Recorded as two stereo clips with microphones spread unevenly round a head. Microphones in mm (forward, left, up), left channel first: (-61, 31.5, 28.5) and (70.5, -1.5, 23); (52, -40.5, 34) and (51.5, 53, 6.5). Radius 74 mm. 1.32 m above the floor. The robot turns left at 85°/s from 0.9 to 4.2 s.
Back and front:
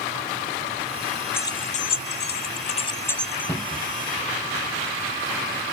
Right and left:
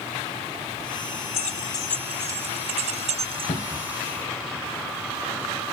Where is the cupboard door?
120° right; by 4.0 s 165° right.